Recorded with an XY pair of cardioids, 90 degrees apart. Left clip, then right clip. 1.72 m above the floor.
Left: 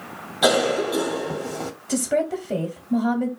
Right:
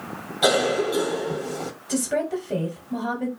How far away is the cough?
About 1.1 m.